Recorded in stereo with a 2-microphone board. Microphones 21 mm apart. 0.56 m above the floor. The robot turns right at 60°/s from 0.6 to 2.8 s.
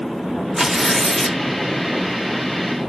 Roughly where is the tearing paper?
Ahead right.